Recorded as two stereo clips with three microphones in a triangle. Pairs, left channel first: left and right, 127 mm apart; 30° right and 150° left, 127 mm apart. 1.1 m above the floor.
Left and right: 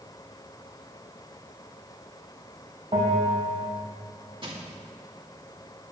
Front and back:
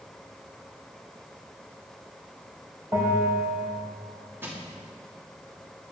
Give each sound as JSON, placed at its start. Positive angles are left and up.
{"t": 2.9, "sound": "a bell", "azimuth_deg": -145, "distance_m": 3.5}
{"t": 4.4, "sound": "crushing", "azimuth_deg": -135, "distance_m": 2.5}